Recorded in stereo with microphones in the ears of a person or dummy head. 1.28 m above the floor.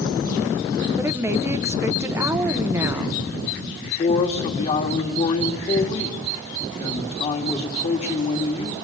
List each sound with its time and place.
1.0 s a woman speaking: 15° right (ahead or behind), 1.0 m
3.8 s a man speaking: 40° left (ahead or behind), 2.5 m